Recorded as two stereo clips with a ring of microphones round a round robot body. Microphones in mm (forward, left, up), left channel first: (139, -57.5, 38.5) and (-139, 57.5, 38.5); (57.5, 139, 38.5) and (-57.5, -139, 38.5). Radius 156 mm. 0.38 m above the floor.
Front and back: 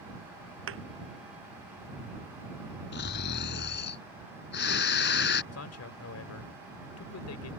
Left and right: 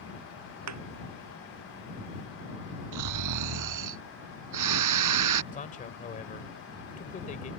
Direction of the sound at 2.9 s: 80° right.